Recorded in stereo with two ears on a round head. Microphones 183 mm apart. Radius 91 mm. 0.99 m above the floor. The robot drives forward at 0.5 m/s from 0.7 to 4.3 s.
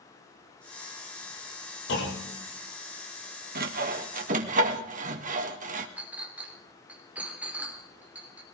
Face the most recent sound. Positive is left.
turn(degrees=-5)  # may be behind; listen again after turning